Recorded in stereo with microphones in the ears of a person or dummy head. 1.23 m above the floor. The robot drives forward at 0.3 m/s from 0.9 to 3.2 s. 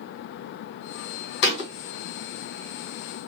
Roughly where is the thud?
Left.